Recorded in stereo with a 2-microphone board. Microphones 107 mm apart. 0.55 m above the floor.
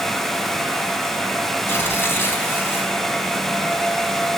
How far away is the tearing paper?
About 5 m.